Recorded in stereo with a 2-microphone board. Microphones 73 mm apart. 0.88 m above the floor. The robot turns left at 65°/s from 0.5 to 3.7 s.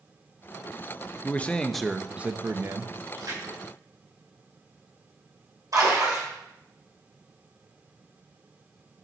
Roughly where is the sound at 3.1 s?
Right.